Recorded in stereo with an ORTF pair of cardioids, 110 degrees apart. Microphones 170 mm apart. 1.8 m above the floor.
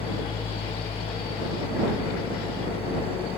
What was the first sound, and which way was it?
An engine running, 35° left.